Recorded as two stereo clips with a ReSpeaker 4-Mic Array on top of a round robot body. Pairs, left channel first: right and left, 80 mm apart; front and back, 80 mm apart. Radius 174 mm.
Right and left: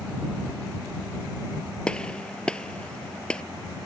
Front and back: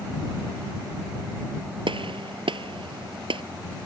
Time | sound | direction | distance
1.9 | a gunshot | 170° right | ?